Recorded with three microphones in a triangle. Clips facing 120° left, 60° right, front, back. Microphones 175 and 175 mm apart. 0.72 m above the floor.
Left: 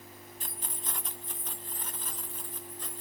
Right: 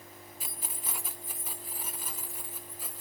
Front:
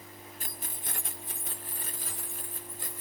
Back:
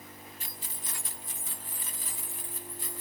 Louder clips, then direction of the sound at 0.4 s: Left 1 dB, front 2 dB; 20° left.